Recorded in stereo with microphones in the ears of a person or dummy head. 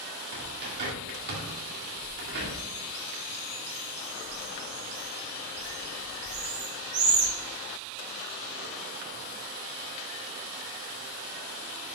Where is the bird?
55° right (ahead or behind), 2 m.